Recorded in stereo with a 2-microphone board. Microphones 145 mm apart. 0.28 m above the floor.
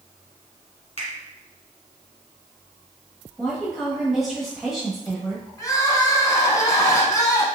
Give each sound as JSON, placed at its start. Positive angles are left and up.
{"t": 1.0, "sound": "a finger snap", "side_deg": 45, "distance_m": 1.9}
{"t": 3.4, "sound": "a woman speaking", "side_deg": 0, "distance_m": 1.2}
{"t": 5.6, "sound": "crying", "side_deg": 25, "distance_m": 0.9}